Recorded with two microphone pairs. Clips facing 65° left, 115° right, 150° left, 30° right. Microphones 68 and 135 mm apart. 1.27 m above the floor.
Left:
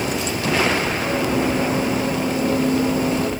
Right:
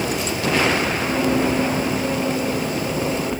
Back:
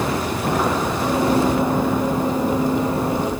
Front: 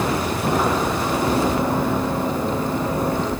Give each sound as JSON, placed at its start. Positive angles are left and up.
{"t": 1.0, "sound": "running footsteps", "azimuth_deg": 155, "distance_m": 2.0}